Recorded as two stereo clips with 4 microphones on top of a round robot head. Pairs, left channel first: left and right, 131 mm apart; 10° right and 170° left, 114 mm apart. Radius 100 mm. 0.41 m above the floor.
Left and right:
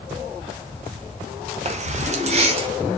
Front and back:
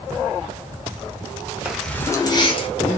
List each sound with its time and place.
1.6 s keys jangling: 110° right, 0.9 m; by 2.7 s 45° right, 1.2 m